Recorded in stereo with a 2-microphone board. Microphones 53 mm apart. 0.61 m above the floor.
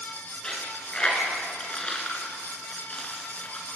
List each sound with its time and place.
0.4 s a dropped coin: 20° left (ahead or behind), 3.5 m